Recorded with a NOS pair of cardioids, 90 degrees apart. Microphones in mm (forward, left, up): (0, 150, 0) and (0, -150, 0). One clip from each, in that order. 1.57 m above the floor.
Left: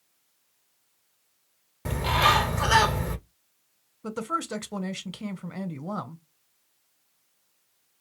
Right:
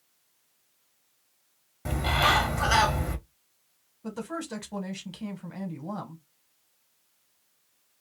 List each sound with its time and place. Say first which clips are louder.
1.9 s a bird: left 2 dB; 15° left, 0.8 m
4.0 s a woman speaking: left 6 dB; 30° left, 1.0 m